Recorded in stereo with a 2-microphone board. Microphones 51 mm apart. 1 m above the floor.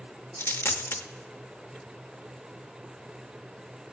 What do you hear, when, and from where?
0.4 s a dropped coin: 50° left (ahead or behind), 0.5 m